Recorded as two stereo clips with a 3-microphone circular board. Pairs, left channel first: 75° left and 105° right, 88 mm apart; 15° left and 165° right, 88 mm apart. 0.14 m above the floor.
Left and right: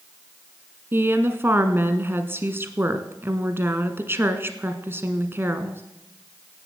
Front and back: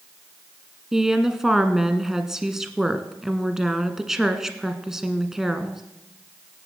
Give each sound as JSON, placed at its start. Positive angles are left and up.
{"t": 0.9, "sound": "a woman speaking", "azimuth_deg": -85, "distance_m": 1.3}